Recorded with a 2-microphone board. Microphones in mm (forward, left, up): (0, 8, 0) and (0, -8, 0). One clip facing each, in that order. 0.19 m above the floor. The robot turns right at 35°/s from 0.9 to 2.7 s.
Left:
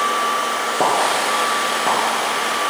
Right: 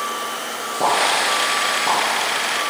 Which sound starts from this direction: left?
A pop, at 0.8 s.